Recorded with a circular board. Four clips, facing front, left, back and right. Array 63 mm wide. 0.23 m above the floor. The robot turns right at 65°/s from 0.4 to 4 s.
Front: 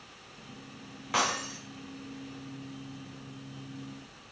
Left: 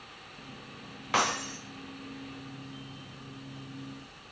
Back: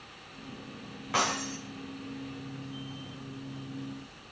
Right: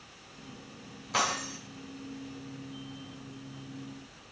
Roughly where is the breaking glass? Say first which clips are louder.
Left 2 dB, even; left.